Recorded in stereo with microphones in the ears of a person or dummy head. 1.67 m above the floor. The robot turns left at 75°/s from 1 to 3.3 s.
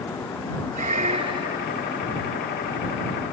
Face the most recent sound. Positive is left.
turn(degrees=75)